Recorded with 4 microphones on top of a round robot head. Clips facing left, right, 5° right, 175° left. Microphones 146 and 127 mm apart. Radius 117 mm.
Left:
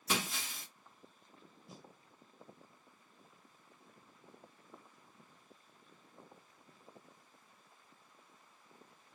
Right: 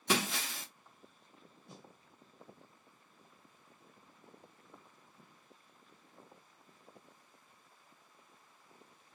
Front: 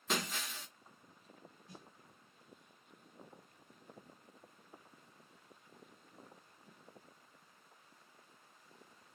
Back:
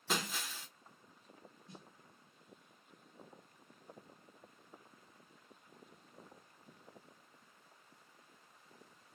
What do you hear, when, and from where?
0.1 s breaking glass: 95° right, 0.6 m
1.7 s a snare drum: straight behind, 1.2 m